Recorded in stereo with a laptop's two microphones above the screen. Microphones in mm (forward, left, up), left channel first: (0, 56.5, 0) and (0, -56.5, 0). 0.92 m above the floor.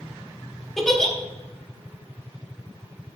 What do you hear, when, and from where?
0.8 s a giggle: 5° left (ahead or behind), 0.9 m